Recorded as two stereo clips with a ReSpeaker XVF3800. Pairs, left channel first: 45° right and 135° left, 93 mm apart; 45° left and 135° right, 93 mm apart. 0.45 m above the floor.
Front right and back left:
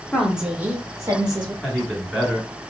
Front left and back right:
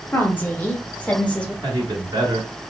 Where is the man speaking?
155° right, 1.5 m.